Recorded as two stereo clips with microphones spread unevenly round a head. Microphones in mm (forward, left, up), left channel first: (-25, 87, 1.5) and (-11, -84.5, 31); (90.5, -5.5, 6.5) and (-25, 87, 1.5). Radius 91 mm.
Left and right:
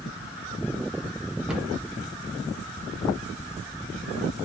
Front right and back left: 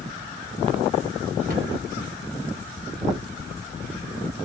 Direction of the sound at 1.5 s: 170° right.